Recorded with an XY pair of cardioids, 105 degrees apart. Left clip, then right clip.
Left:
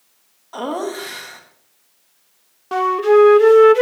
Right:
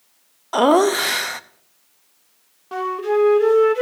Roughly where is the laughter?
Right.